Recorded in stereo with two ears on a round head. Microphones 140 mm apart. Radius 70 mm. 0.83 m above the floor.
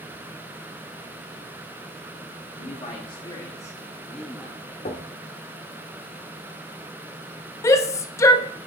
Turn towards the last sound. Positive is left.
turn(degrees=20)  # may be behind; listen again after turning